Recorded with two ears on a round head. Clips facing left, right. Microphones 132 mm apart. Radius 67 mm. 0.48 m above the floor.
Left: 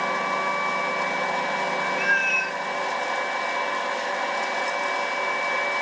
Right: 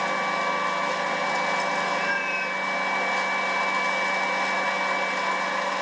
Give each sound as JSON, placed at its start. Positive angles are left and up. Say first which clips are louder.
{"t": 2.0, "sound": "a cat meowing", "louder": "left 1 dB", "side_deg": 70, "distance_m": 1.6}